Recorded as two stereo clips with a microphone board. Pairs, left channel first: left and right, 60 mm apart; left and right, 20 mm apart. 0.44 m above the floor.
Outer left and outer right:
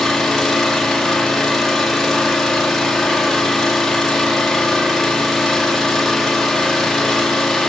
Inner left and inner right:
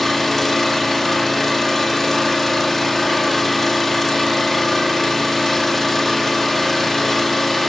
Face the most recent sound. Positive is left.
turn(degrees=5)  # may be behind; listen again after turning